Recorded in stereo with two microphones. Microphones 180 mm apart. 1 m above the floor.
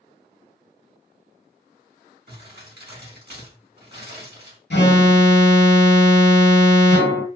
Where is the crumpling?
65° right (ahead or behind), 1.6 m.